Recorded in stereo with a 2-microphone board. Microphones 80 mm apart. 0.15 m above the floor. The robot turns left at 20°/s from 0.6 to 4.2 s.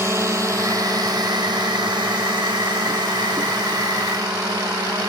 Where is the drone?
35° right (ahead or behind); by 5.1 s 50° right (ahead or behind).